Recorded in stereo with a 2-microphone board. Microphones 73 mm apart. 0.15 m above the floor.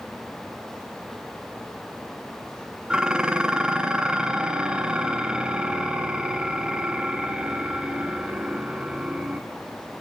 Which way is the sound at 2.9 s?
15° right (ahead or behind).